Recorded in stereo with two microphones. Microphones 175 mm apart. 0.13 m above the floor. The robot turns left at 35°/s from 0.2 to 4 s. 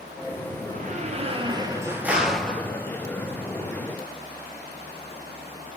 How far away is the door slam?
About 2.0 m.